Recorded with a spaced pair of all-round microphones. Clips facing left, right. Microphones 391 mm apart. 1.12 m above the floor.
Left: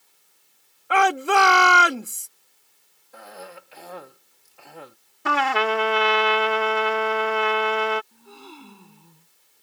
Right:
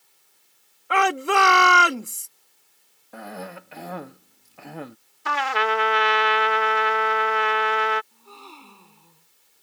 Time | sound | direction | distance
0.9 | a shout | centre (ahead or behind) | ?
3.1 | a cough | 70° right (ahead or behind) | ?
5.2 | a trumpet | 65° left (ahead or behind) | ?
8.1 | a gasp | 30° left (ahead or behind) | ?